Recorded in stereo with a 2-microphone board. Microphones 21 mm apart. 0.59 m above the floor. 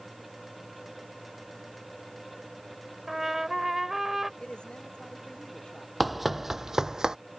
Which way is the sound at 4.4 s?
50° left (ahead or behind).